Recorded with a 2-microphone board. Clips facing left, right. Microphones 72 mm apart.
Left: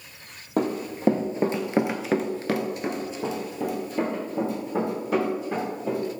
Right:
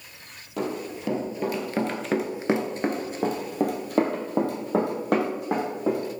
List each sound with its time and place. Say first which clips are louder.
0.6 s running footsteps: left 4 dB; 50° left (ahead or behind), 1.2 m; by 6.0 s 65° right (ahead or behind), 2.5 m